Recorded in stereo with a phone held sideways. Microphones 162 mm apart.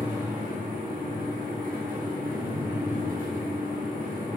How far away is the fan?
About 0.9 m.